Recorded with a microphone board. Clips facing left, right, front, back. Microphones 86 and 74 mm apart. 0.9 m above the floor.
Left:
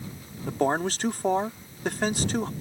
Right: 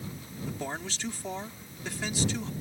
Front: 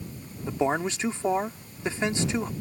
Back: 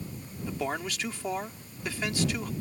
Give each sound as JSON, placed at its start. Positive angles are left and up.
{"t": 0.5, "sound": "a man speaking", "azimuth_deg": 60}